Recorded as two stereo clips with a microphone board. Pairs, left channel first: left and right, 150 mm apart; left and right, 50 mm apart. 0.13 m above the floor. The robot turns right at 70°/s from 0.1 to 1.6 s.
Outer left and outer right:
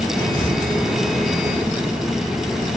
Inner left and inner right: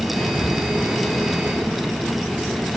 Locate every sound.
0.2 s whispering: 20° left (ahead or behind), 1.4 m; by 0.5 s 5° left (ahead or behind), 1.4 m